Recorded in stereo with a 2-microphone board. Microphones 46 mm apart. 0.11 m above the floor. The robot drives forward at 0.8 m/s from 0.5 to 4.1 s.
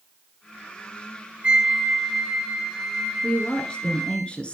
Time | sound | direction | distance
1.4 | a flute | 25° right (ahead or behind) | 0.6 m
3.2 | a woman speaking | 20° left (ahead or behind) | 1.8 m